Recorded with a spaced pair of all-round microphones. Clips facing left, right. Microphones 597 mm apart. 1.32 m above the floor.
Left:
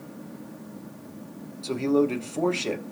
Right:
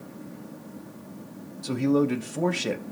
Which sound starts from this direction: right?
A man speaking, at 1.6 s.